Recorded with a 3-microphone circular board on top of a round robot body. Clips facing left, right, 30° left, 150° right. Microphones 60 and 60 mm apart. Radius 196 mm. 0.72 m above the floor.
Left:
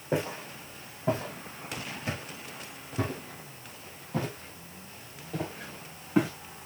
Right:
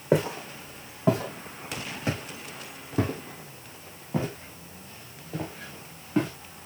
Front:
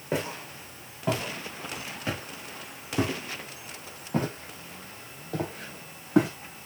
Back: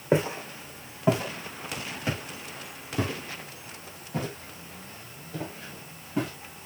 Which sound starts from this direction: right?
Footsteps, at 0.1 s.